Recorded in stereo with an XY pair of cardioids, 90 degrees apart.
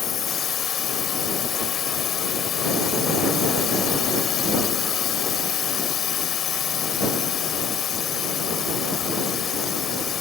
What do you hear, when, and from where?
0.0 s a drone: 70° left